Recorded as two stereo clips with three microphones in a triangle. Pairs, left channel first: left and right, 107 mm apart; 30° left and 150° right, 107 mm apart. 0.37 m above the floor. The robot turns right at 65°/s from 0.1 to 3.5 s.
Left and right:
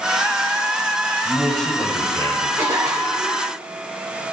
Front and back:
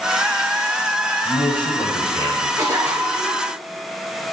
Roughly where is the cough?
Behind right.